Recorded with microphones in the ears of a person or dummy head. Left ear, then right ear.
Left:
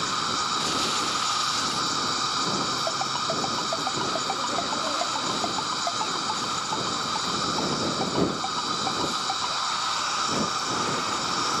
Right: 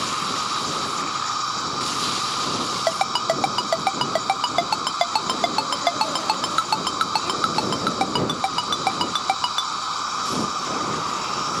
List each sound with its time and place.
0.0 s an insect: 15° left (ahead or behind)
2.9 s a ringtone: 70° right (ahead or behind)